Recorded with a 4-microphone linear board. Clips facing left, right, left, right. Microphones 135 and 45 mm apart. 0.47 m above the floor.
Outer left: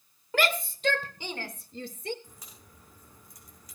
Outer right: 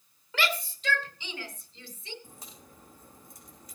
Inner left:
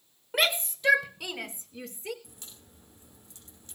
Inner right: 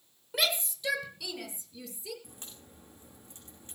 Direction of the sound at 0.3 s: 45° left (ahead or behind).